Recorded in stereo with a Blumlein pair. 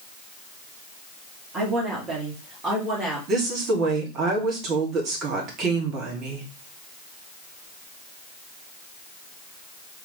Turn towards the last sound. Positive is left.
turn(degrees=-35)